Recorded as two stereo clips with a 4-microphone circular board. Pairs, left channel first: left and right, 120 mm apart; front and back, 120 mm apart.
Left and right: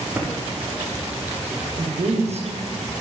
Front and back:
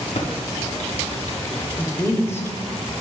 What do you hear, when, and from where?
0.1 s typing on a keyboard: 15° right, 0.8 m
1.8 s a woman speaking: 70° right, 0.9 m